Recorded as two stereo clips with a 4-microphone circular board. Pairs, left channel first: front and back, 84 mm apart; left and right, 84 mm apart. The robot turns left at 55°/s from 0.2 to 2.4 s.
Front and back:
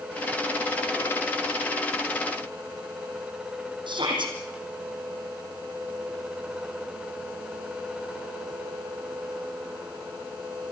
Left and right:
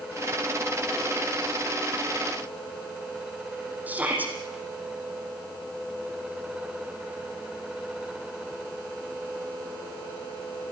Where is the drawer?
I don't hear a drawer.